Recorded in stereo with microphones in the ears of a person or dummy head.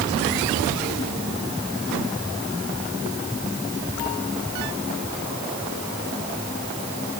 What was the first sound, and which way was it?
Only background noise.